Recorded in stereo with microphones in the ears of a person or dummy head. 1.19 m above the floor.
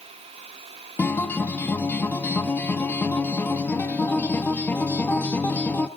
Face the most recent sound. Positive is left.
turn(degrees=10)  # may be behind; listen again after turning